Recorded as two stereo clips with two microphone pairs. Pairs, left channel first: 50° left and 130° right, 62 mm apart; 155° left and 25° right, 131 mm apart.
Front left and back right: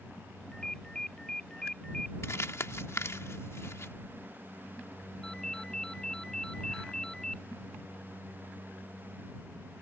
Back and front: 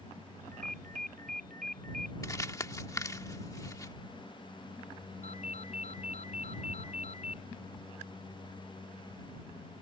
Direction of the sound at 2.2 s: 90° left.